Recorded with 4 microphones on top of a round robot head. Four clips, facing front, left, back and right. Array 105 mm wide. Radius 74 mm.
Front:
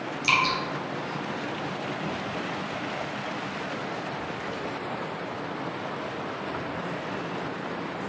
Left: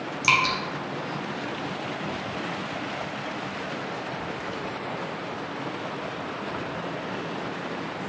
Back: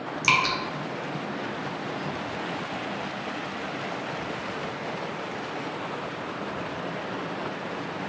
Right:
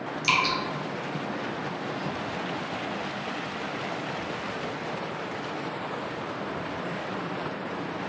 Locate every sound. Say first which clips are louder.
0.2 s dripping: left 2 dB, back 1 dB; 140° left, 0.7 m